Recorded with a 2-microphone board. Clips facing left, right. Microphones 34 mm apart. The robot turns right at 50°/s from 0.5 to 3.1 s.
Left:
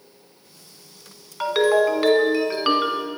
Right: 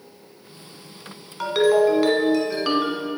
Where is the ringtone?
10° left (ahead or behind), 1.0 m; by 3.1 s 30° left (ahead or behind), 1.0 m.